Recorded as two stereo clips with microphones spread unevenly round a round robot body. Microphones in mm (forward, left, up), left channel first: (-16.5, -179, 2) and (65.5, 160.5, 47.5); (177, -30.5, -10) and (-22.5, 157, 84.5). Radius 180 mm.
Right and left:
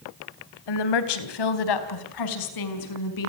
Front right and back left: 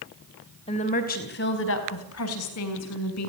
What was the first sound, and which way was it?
A woman speaking, 110° right.